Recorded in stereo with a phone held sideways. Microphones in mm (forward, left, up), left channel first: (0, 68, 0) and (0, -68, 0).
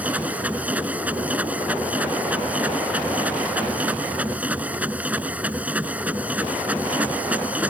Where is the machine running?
10° right (ahead or behind).